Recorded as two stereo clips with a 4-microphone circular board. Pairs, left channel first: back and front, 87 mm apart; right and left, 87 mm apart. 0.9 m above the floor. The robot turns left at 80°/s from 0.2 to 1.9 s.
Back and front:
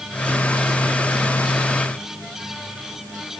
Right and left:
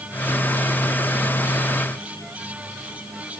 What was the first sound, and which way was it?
Only background noise.